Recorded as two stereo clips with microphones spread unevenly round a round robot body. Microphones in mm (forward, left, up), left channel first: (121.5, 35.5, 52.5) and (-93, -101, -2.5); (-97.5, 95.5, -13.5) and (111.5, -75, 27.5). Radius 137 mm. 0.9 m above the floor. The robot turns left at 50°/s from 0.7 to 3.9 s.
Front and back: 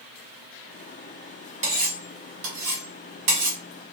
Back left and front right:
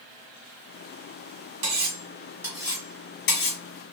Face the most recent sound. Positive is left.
turn(degrees=165)